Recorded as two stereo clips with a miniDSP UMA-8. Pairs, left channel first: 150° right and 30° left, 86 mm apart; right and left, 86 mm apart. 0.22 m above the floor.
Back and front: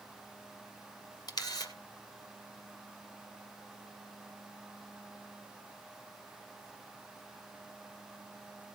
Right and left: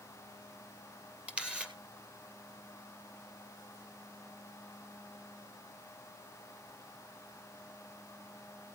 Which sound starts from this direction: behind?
A camera shutter, at 1.3 s.